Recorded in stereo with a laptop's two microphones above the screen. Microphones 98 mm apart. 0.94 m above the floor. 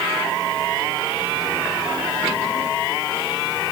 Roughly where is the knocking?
I don't hear knocking.